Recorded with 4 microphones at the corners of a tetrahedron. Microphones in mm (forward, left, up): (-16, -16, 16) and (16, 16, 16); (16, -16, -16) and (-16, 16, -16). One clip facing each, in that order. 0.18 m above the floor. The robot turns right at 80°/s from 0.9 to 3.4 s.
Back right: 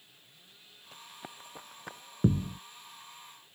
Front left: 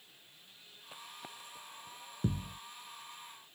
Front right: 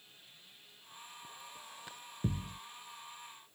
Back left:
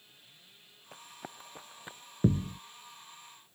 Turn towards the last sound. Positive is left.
turn(degrees=-95)